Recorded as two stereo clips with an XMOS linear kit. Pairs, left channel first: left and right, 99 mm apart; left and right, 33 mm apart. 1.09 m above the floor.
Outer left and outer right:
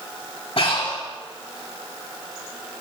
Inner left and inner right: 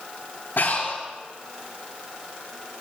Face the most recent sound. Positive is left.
turn(degrees=80)